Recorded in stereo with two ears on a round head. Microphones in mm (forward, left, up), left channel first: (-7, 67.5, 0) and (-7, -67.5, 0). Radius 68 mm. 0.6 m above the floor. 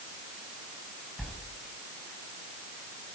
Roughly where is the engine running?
I don't hear an engine running.